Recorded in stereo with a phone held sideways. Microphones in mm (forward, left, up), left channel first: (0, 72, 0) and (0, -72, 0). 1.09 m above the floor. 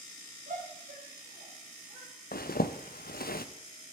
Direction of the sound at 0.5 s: 70° right (ahead or behind).